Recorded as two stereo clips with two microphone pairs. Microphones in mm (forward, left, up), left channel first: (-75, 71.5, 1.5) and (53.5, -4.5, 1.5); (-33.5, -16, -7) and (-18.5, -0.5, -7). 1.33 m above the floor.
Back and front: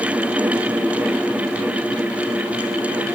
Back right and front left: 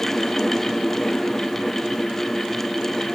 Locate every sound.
Only background noise.